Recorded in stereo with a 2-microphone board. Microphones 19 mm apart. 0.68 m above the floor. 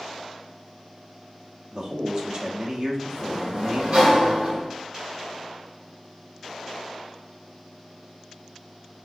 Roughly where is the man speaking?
Right.